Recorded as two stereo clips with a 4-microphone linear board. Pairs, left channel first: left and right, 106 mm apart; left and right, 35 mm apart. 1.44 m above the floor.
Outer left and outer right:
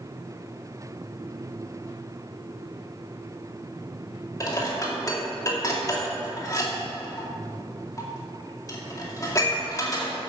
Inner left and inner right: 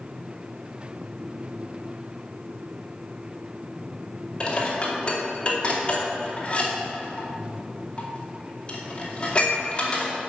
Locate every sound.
4.4 s dishes clattering: 30° left (ahead or behind), 2.5 m